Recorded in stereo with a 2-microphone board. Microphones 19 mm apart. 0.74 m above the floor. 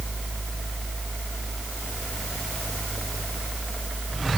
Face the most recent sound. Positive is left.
No sound to turn to.